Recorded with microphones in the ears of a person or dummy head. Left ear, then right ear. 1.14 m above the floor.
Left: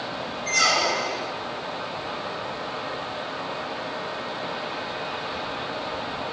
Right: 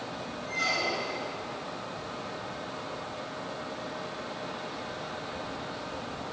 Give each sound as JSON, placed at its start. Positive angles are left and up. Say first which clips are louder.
{"t": 0.5, "sound": "a squeak", "louder": "left 8 dB", "side_deg": 70, "distance_m": 1.4}